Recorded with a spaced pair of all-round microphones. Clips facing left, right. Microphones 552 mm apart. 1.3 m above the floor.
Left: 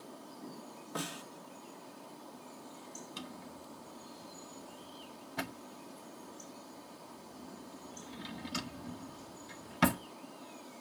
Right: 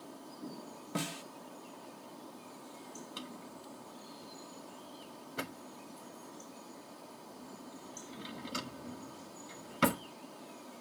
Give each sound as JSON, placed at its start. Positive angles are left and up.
{"t": 0.9, "sound": "a snare drum", "side_deg": -45, "distance_m": 1.3}
{"t": 3.2, "sound": "a drawer", "side_deg": 15, "distance_m": 0.6}